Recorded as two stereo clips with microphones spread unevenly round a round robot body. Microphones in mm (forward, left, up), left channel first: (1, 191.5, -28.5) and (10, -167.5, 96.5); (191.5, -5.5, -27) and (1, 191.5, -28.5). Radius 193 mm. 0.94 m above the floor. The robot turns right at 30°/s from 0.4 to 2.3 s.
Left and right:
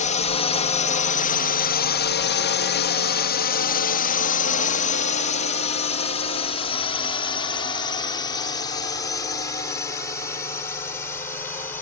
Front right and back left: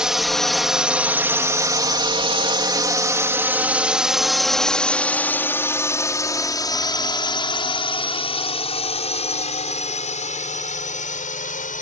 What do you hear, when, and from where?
0.0 s a drone: 45° left; by 11.8 s 15° left